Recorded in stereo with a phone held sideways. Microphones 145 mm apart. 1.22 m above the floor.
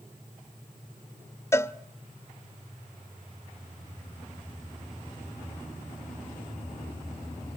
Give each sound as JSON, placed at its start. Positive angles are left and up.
{"t": 1.5, "sound": "a cowbell", "side_deg": 20, "distance_m": 0.6}